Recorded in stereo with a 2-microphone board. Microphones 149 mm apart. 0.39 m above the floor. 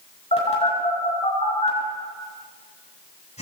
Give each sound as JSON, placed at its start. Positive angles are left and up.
{"t": 0.3, "sound": "a phone buzzing", "side_deg": 50, "distance_m": 6.5}